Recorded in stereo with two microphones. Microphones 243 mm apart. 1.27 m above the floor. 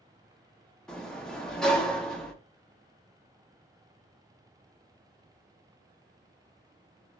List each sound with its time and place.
0.9 s a sliding door: 5° left (ahead or behind), 0.5 m